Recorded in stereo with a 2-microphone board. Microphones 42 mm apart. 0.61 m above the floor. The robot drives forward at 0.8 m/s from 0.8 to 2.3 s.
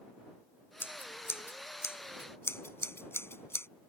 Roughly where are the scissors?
Left.